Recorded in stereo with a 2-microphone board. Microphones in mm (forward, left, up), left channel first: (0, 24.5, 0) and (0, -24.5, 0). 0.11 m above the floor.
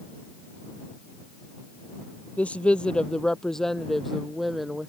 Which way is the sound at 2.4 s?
25° left (ahead or behind).